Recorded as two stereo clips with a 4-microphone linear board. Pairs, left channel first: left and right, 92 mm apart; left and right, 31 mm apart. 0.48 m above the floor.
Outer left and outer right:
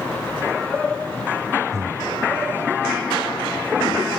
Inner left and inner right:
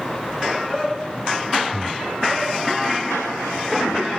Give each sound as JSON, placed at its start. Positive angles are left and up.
{"t": 1.7, "sound": "breathing", "side_deg": -35, "distance_m": 1.2}